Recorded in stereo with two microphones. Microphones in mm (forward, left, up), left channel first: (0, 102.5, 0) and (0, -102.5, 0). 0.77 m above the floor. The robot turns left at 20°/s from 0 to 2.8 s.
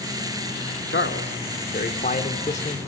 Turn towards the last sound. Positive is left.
turn(degrees=30)